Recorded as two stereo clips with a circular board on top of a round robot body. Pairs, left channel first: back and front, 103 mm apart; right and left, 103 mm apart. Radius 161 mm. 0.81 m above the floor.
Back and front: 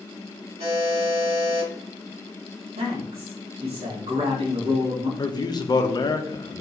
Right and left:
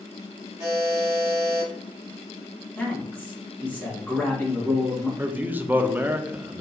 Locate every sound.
0.6 s a buzzer: 25° left, 2 m
2.8 s a man speaking: 15° right, 1.9 m
5.2 s a man speaking: 155° left, 0.7 m